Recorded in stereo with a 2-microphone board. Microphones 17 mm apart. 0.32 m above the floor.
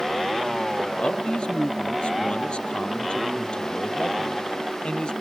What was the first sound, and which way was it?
A man speaking, 80° left.